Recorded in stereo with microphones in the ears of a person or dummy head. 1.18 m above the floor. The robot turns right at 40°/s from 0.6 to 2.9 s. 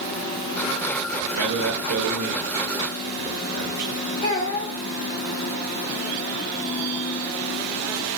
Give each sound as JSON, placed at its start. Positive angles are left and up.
{"t": 1.3, "sound": "a man speaking", "side_deg": -70, "distance_m": 1.0}
{"t": 4.2, "sound": "a child speaking", "side_deg": 40, "distance_m": 2.5}